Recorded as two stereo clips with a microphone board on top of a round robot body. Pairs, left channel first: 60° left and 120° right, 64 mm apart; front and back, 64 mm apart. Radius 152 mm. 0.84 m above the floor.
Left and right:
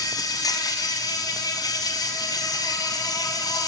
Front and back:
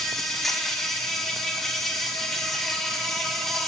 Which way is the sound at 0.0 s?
85° left.